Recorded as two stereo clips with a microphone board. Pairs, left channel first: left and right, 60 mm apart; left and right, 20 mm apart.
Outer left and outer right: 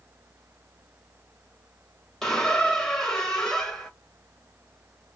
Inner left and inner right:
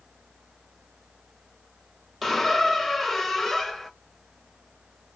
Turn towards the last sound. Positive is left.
turn(degrees=10)  # may be behind; listen again after turning